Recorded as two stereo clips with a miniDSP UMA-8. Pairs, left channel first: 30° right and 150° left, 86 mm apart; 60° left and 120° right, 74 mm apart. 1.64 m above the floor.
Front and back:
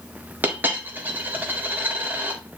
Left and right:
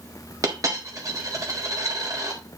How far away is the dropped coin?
About 1.8 m.